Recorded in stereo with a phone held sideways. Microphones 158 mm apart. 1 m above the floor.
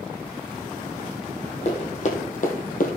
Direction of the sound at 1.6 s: 45° left (ahead or behind).